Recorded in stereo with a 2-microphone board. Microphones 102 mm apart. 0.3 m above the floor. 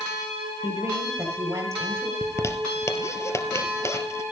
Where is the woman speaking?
25° right (ahead or behind), 7 m.